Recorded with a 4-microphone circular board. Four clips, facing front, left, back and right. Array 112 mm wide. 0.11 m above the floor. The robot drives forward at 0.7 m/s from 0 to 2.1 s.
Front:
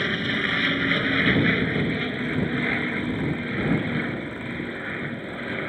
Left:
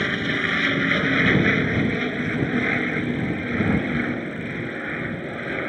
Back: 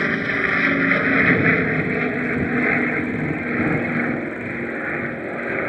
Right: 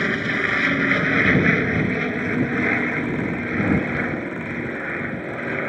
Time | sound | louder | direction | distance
0.0 | an aircraft | right 2 dB, back 4 dB | 165° right | ?